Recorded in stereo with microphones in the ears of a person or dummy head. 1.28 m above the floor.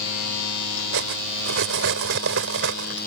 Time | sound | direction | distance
0.9 | cutlery clinking | 70° right (ahead or behind) | ?